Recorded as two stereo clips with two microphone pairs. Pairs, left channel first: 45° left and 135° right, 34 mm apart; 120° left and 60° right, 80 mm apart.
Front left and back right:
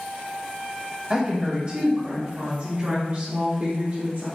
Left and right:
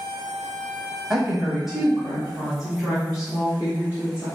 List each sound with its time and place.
1.1 s a woman speaking: 135° right, 1.1 m; by 4.3 s 145° right, 2.5 m